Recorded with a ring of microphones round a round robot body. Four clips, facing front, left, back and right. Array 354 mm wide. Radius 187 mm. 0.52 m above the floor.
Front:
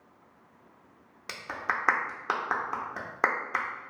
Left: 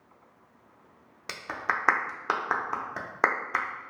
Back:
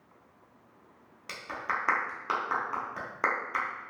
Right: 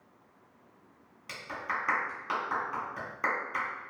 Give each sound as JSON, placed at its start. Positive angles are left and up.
{"t": 1.3, "sound": "a clap", "azimuth_deg": 65, "distance_m": 0.7}